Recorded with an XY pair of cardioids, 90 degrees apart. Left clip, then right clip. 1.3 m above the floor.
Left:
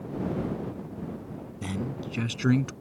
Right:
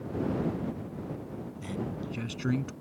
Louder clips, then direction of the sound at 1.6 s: Left 3 dB; 55° left.